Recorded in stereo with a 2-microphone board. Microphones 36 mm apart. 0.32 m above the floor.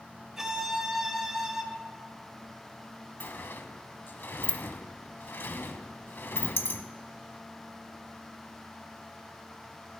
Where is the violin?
15° right (ahead or behind), 0.8 m.